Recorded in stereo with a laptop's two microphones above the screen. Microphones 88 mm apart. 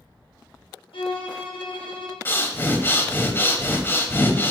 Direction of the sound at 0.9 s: 80° left.